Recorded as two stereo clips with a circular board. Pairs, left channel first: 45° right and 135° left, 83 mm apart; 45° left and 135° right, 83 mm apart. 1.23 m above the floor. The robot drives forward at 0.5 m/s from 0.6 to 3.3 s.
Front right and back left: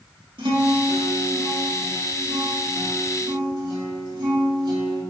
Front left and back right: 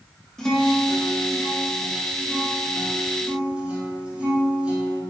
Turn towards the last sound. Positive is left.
turn(degrees=150)